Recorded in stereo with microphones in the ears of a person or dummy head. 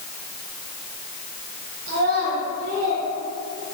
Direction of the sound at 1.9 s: 70° right (ahead or behind).